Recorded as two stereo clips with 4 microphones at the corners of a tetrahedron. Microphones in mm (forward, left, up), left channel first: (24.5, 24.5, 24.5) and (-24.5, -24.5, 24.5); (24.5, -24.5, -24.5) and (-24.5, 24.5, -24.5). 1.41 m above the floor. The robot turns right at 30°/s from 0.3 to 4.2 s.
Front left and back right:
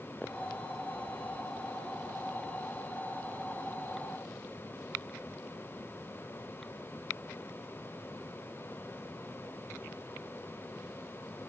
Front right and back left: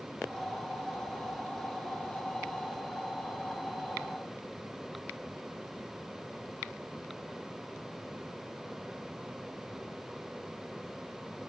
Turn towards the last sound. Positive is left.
No sound to turn to.